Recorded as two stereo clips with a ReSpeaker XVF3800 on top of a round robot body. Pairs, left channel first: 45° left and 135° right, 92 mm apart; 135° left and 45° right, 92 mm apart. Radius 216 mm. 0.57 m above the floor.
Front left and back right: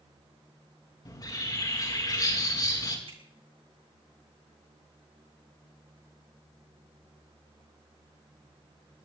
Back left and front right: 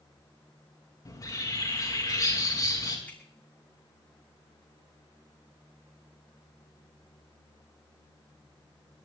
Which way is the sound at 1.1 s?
90° left.